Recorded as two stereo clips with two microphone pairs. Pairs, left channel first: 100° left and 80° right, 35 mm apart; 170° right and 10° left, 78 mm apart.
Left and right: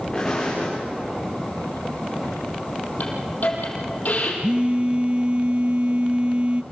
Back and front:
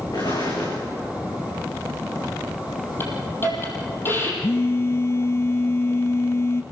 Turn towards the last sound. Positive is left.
turn(degrees=-125)